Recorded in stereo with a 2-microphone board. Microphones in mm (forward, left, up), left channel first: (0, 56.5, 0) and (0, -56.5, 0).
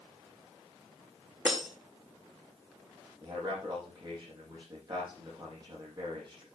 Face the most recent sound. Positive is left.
turn(degrees=-40)  # may be behind; listen again after turning